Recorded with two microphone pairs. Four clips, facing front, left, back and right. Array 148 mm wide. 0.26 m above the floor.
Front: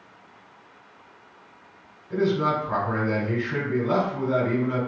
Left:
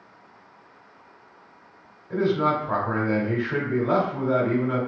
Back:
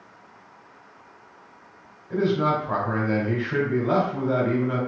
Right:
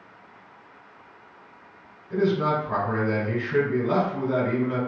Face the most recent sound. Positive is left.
turn(degrees=130)